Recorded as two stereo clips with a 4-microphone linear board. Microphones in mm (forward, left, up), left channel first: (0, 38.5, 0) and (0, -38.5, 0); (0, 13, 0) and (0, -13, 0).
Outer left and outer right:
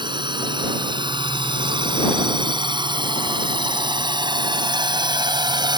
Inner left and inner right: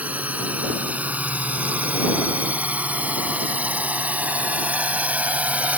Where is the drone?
90° right; by 5.8 s 70° right (ahead or behind).